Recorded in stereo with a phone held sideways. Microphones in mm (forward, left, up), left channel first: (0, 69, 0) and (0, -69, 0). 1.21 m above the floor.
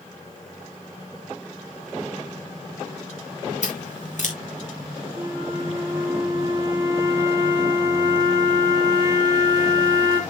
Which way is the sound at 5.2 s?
30° right (ahead or behind).